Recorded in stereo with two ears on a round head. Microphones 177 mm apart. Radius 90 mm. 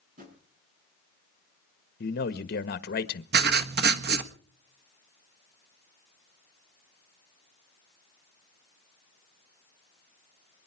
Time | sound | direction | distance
0.2 | a drawer | 45° right (ahead or behind) | 7.5 m
2.0 | a man speaking | 50° left (ahead or behind) | 1.3 m
3.3 | writing | 55° right (ahead or behind) | 1.4 m